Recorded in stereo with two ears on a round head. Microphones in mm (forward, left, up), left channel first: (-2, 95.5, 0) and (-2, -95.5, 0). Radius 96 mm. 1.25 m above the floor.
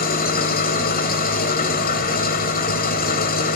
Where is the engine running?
45° left (ahead or behind), 1.5 m.